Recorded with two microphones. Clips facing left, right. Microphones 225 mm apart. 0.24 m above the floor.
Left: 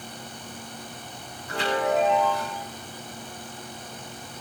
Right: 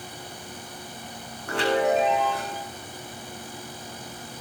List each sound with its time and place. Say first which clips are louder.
1.5 s a chime: right 3 dB; 80° right, 4.5 m